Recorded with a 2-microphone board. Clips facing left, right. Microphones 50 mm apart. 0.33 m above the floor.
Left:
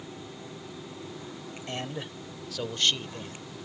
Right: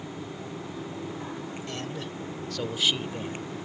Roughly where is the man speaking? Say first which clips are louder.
Left 3 dB; left.